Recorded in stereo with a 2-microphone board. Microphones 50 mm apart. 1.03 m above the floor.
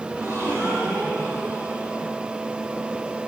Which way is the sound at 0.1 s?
70° right (ahead or behind).